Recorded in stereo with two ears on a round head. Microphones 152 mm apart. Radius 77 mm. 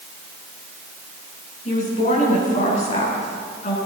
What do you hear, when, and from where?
1.6 s a woman speaking: 45° left (ahead or behind), 8.5 m